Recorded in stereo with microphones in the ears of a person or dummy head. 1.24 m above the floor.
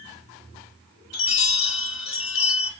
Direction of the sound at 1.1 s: 65° left (ahead or behind).